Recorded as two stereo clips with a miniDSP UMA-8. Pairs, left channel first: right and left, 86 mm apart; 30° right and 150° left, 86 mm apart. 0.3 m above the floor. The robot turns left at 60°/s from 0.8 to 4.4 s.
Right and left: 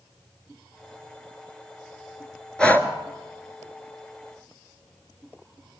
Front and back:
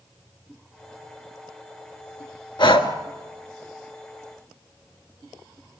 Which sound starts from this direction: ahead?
Breathing, at 2.6 s.